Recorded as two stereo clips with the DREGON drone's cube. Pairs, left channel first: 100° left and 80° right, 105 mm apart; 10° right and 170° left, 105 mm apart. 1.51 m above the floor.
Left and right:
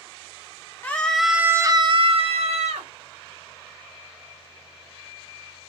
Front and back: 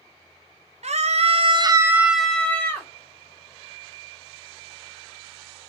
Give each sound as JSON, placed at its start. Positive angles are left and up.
{"t": 0.8, "sound": "a scream", "azimuth_deg": 175, "distance_m": 0.8}